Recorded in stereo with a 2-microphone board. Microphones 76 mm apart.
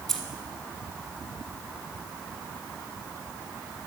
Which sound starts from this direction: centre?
Keys jangling, at 0.1 s.